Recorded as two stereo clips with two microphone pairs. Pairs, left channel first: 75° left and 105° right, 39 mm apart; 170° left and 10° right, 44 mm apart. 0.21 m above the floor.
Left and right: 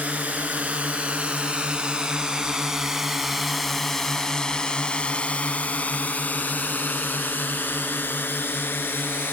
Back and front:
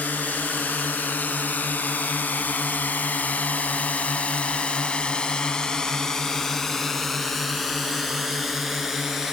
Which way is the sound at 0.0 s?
150° right.